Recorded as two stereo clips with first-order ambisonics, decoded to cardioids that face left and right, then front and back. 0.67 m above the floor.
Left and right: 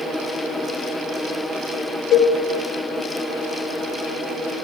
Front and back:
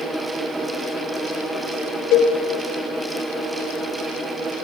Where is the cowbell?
35° left, 3.5 m.